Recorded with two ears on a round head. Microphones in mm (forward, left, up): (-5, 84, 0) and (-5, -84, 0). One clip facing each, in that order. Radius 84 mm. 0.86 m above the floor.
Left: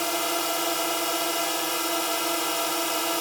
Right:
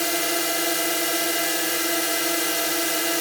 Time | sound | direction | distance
0.0 | a drone | 20° right (ahead or behind) | ?